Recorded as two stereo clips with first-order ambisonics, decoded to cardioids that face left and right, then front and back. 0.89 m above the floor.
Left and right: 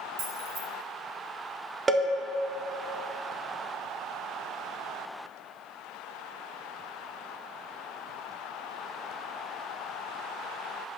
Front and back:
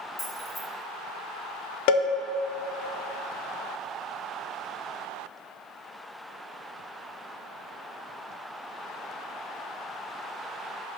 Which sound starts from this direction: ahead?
A cowbell, at 1.9 s.